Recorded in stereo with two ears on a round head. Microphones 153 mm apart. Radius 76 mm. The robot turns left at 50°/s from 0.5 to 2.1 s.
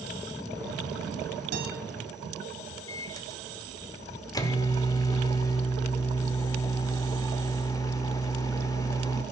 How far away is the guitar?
About 3 m.